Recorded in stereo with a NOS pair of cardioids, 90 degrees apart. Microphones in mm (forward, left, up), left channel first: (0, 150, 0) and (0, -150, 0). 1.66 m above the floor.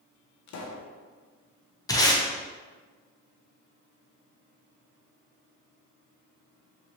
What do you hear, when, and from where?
0.5 s a pop: 65° left, 0.7 m
1.9 s tape being pulled: 10° left, 0.9 m